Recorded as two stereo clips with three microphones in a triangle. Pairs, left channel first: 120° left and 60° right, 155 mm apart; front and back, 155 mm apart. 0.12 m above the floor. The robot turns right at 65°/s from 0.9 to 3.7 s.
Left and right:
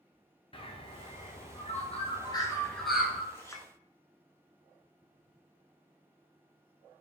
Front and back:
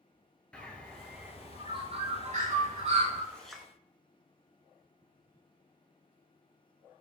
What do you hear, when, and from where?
0.5 s a bird: 80° left, 0.8 m; by 3.2 s 130° right, 0.8 m
3.3 s a clink: 70° left, 0.7 m; by 3.7 s 95° left, 0.7 m